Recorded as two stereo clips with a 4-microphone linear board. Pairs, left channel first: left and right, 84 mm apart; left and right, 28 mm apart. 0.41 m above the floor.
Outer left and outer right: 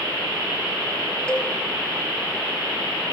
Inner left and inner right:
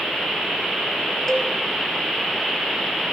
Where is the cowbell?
10° left (ahead or behind), 3 m.